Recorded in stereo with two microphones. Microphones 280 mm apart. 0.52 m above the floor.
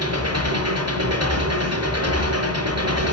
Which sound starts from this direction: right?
An engine running, at 0.0 s.